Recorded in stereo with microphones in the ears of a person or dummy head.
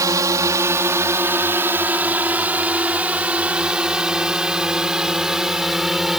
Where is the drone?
15° right (ahead or behind); by 6.2 s 5° left (ahead or behind).